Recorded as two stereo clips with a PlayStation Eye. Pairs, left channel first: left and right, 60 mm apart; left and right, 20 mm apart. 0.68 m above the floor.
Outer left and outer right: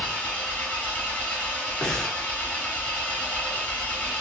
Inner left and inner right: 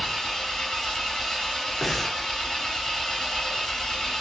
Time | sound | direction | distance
0.0 | an engine running | 25° left (ahead or behind) | 1.1 m
1.8 | breathing | 10° left (ahead or behind) | 0.6 m